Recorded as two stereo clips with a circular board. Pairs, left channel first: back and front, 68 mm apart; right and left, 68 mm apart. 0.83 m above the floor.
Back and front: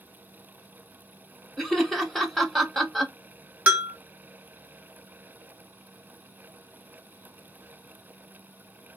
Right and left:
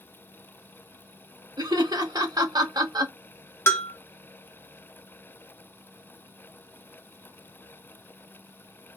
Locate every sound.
1.6 s laughter: 95° left, 0.9 m
3.7 s a bell: 60° right, 0.7 m